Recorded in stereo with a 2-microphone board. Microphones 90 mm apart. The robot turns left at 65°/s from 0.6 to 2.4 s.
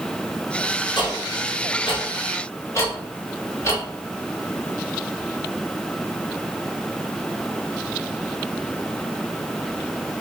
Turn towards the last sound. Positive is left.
turn(degrees=35)  # may be behind; listen again after turning